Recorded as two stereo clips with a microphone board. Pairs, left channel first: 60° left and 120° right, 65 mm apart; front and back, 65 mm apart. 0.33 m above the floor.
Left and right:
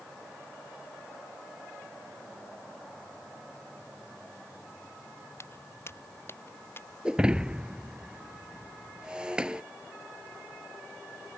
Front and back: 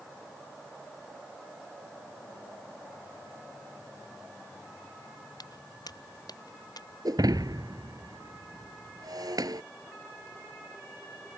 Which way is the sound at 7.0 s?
165° left.